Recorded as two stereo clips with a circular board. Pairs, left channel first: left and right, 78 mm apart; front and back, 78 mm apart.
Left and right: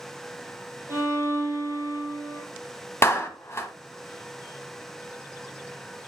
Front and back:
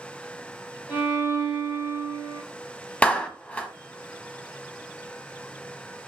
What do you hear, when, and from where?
0.9 s a violin: 35° right, 4.5 m
3.0 s a clap: 65° left, 1.0 m